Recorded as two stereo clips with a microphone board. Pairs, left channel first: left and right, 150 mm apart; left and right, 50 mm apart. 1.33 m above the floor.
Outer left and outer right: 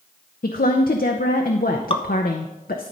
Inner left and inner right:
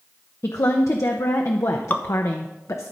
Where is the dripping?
40° left (ahead or behind), 0.6 m.